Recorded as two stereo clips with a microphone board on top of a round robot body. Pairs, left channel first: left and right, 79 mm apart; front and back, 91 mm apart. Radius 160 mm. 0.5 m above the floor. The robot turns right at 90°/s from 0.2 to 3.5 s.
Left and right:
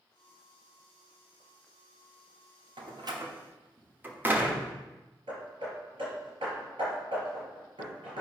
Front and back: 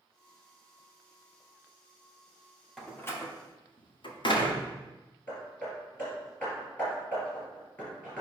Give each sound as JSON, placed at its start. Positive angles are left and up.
{"t": 2.8, "sound": "a door slam", "azimuth_deg": -90, "distance_m": 1.4}
{"t": 5.3, "sound": "hammering", "azimuth_deg": -75, "distance_m": 3.5}